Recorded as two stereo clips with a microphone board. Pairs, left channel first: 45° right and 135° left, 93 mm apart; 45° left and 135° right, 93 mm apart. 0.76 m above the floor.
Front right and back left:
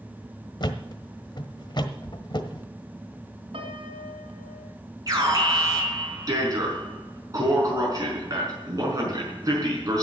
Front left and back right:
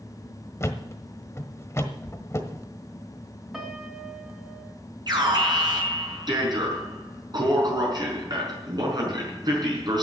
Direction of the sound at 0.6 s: 15° right.